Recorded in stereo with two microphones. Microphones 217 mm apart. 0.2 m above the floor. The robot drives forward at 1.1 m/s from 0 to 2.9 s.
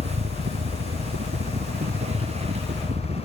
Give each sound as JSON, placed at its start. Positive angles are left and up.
{"t": 0.0, "sound": "a helicopter", "side_deg": -65}